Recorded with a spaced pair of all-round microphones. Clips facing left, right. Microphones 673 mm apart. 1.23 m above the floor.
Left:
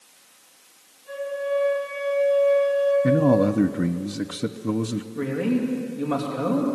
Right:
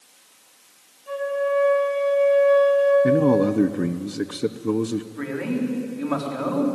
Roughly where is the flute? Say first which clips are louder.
Right 3 dB; right.